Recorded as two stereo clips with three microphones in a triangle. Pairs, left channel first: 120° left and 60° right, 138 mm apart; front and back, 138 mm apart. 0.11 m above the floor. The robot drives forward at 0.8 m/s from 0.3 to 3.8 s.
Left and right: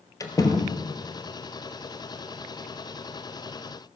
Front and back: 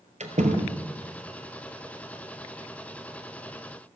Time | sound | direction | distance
0.2 | a door slam | straight behind | 1.5 m